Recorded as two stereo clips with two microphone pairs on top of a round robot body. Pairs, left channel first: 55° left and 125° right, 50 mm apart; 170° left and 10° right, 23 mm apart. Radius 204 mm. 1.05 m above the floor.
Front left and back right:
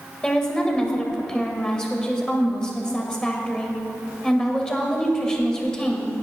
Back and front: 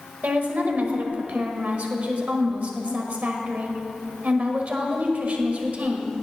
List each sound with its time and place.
0.2 s a woman speaking: 20° right, 1.9 m